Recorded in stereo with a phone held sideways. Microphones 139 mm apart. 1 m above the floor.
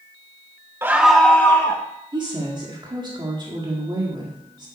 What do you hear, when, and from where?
0.8 s a scream: 15° right (ahead or behind), 0.7 m; by 1.8 s 20° left (ahead or behind), 1.1 m
2.1 s a woman speaking: 35° right (ahead or behind), 1.9 m